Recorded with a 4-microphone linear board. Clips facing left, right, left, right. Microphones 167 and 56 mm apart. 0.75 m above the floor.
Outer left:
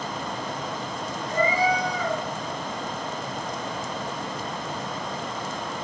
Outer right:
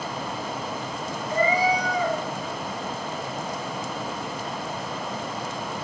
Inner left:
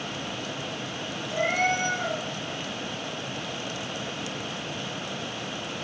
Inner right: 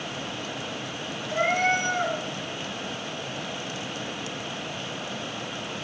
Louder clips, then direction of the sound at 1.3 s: Outer right 1 dB, inner right 2 dB; 60° right (ahead or behind).